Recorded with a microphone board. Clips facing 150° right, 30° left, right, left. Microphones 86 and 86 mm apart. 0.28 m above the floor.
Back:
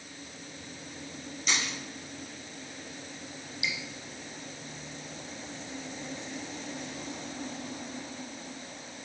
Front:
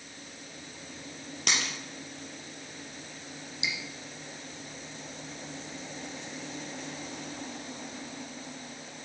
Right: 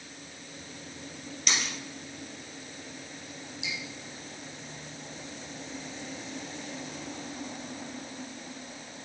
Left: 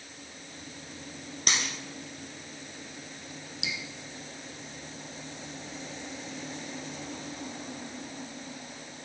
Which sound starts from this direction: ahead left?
A dropped coin, at 1.5 s.